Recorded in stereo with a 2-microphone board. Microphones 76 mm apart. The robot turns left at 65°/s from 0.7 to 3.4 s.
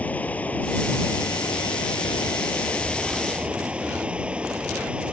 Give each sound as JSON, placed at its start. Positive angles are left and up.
{"t": 0.0, "sound": "running water", "azimuth_deg": 160}